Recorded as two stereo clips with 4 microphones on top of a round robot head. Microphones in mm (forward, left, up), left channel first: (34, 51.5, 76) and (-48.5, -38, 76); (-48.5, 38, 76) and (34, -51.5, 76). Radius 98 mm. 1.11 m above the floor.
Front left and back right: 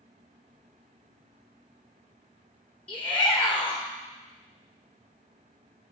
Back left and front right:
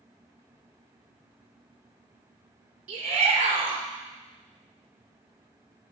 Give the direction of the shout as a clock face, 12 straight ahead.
1 o'clock.